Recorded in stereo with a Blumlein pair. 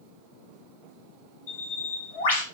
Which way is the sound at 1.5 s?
55° left.